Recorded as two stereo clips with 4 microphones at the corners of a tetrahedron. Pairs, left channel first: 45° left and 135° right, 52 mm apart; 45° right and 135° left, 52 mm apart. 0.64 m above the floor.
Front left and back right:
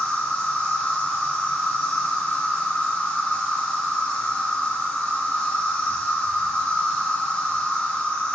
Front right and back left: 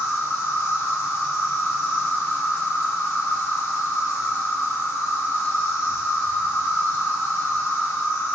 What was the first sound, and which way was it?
An insect, 15° right.